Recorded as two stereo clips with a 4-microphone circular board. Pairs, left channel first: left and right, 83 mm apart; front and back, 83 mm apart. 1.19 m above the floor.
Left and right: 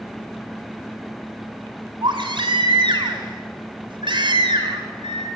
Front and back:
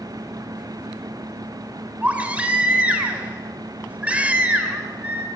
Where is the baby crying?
105° right, 3 m.